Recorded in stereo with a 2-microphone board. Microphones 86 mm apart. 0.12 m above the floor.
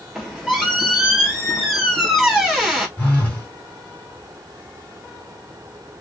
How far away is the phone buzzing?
About 1.3 m.